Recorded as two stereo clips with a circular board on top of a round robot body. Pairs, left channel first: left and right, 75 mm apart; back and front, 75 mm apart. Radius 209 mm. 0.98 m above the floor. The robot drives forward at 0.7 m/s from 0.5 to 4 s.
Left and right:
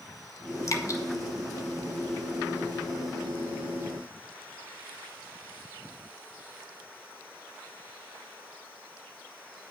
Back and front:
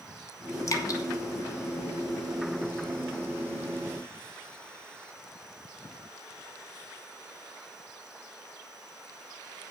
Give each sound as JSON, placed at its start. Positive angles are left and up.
{"t": 0.7, "sound": "dripping", "azimuth_deg": 135, "distance_m": 1.6}